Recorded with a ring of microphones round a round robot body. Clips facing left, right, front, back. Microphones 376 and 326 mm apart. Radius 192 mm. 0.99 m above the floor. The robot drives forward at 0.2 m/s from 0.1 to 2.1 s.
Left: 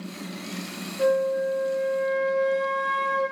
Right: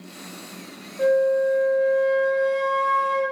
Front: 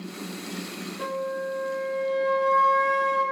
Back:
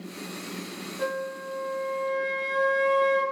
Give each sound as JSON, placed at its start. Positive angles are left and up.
{"t": 1.0, "sound": "a flute", "azimuth_deg": -125, "distance_m": 0.9}